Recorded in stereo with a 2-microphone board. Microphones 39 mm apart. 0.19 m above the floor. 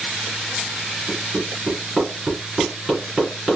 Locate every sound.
1.1 s hammering: 15° right (ahead or behind), 2.5 m